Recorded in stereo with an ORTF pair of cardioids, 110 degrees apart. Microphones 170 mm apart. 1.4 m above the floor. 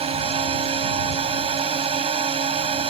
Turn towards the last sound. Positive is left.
turn(degrees=-35)